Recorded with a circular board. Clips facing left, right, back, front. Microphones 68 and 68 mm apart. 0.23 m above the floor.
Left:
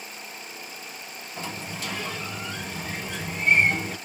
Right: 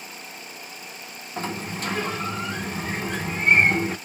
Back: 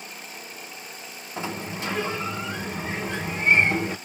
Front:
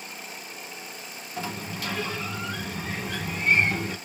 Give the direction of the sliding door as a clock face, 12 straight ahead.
4 o'clock.